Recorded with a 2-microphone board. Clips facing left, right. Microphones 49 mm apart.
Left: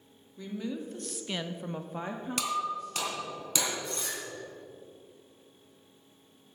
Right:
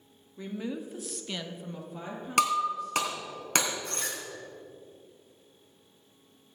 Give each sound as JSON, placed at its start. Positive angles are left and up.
{"t": 0.4, "sound": "a woman speaking", "side_deg": -25, "distance_m": 1.7}
{"t": 2.4, "sound": "breaking glass", "side_deg": -60, "distance_m": 3.0}